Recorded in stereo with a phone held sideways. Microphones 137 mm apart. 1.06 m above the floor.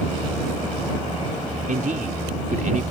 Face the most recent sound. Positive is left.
turn(degrees=-70)  # may be behind; listen again after turning